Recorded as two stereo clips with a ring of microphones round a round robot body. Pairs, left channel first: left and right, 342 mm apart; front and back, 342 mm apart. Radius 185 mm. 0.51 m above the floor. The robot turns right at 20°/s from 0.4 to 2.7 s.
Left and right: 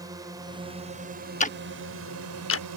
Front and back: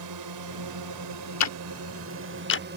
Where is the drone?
170° right; by 2.8 s 125° right.